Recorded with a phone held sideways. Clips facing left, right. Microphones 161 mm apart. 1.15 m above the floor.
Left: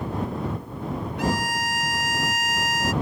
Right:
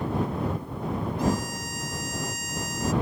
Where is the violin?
80° left.